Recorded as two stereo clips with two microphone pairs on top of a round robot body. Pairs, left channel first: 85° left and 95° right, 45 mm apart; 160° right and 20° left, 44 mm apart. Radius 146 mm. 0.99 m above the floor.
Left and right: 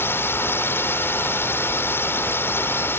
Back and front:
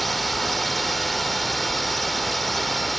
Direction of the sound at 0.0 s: 115° left.